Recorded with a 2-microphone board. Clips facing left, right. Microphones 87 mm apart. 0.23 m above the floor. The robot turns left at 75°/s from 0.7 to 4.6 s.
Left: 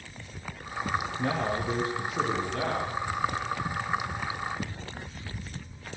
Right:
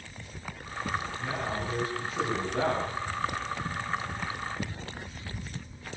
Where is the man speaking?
95° left, 8.5 m; by 2.9 s 35° right, 8.5 m.